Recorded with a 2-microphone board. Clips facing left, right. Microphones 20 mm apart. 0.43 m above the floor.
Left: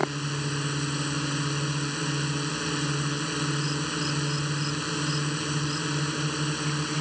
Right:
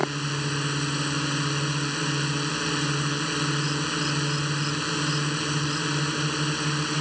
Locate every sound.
0.0 s a drone: 10° right (ahead or behind)